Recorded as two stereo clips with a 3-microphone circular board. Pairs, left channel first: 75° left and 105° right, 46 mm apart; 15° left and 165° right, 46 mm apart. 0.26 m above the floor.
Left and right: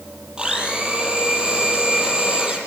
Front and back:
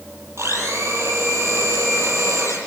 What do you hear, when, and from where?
0.4 s a blender: 175° right, 8 m